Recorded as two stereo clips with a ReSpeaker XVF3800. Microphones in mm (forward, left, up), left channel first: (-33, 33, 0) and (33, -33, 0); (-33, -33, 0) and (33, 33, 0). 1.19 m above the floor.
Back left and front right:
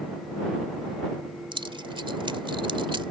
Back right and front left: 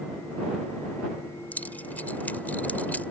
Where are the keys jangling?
65° right.